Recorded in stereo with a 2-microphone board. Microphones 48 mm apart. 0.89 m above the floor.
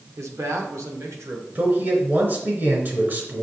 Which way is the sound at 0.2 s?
85° right.